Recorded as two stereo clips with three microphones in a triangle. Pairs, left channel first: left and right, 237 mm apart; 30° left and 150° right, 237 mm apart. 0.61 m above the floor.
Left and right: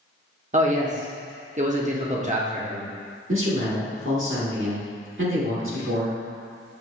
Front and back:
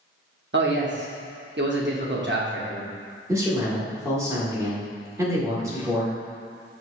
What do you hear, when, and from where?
0.5 s a man speaking: 140° right, 0.8 m
3.3 s a man speaking: 75° right, 1.4 m